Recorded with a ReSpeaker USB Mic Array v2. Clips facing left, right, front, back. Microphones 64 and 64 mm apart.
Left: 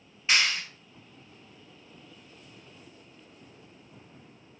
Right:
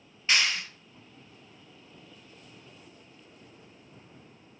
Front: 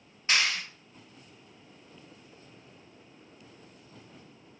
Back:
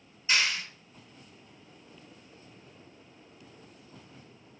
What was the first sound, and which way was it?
A clap, 5° left.